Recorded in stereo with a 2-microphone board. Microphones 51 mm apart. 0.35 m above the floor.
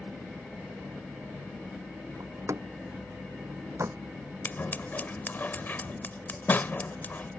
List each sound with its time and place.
2.2 s a door slam: 70° right (ahead or behind)
4.5 s scissors: 35° left (ahead or behind)